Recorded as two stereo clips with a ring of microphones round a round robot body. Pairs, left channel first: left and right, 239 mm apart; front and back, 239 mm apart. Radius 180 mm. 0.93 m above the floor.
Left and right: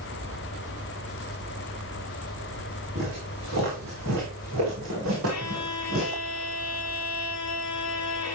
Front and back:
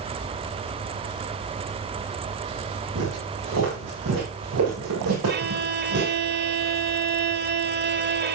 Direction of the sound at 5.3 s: 135° left.